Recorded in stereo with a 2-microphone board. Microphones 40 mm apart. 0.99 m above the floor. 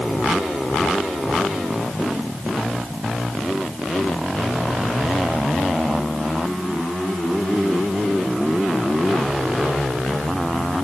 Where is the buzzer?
I don't hear a buzzer.